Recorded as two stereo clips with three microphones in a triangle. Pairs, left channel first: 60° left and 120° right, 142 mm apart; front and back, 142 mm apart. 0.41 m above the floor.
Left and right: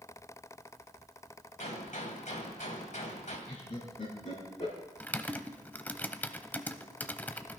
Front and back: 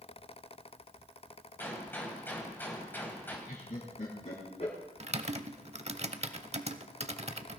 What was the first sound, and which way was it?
A gunshot, 75° left.